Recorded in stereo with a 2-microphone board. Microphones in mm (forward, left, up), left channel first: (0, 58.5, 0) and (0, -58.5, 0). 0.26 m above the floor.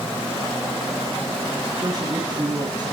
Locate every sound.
1.7 s a man speaking: 40° right (ahead or behind), 2.5 m